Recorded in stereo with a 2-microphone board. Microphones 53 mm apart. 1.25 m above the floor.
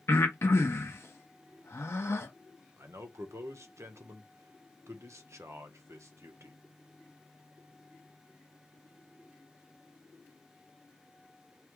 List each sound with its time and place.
0.1 s breathing: 60° left (ahead or behind), 1.1 m
2.8 s a man speaking: 70° right (ahead or behind), 1.0 m